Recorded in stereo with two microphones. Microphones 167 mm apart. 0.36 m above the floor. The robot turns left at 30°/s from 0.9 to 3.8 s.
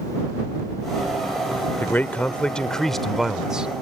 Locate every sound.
1.8 s a man speaking: 10° left (ahead or behind); by 3.7 s 5° right (ahead or behind)